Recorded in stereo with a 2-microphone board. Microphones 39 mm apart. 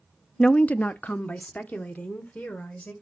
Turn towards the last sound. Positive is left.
turn(degrees=45)  # may be behind; listen again after turning